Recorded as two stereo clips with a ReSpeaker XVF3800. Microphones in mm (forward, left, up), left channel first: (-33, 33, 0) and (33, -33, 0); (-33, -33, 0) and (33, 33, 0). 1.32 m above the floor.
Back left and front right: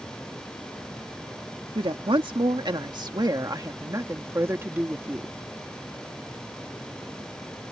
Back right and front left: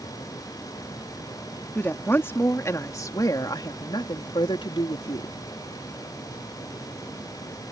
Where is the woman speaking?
65° right; by 5.3 s 120° right.